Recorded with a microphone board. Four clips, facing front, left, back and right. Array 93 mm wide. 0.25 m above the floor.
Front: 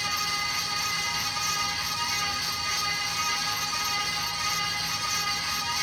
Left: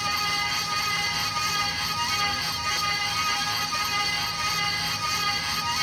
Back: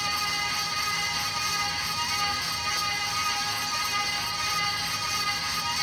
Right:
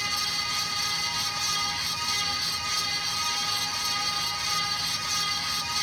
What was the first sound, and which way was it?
Only background noise.